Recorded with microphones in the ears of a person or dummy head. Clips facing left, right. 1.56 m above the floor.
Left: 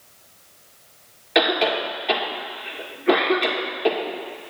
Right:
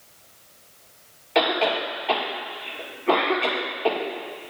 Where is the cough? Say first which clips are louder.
Left 2 dB; 25° left (ahead or behind), 1.7 m.